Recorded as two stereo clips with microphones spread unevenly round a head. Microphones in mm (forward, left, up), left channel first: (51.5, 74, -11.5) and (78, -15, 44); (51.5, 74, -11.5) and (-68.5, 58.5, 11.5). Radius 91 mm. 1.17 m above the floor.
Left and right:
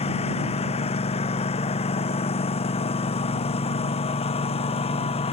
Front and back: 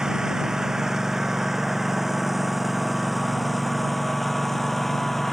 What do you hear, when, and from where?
0.0 s a lawn mower: 105° left; by 5.3 s 95° left